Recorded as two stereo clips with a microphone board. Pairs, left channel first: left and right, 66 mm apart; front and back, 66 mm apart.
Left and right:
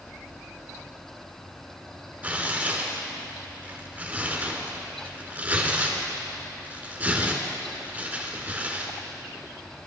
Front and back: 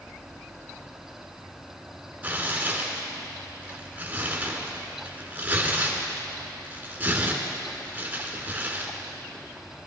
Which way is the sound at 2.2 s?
140° right.